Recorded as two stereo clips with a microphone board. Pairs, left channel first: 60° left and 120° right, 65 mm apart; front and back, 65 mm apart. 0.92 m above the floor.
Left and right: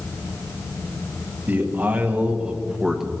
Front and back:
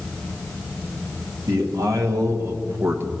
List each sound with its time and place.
1.5 s a man speaking: straight behind, 1.6 m; by 3.1 s 155° left, 1.0 m